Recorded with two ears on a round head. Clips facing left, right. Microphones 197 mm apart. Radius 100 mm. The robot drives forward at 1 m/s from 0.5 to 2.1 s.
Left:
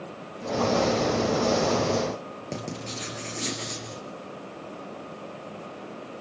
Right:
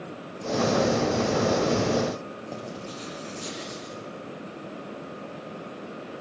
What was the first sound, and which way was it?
Writing, 25° left (ahead or behind).